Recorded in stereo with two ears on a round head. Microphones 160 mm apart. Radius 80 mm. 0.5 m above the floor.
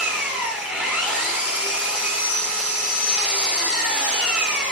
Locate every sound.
0.0 s an engine running: 10° right (ahead or behind), 3.5 m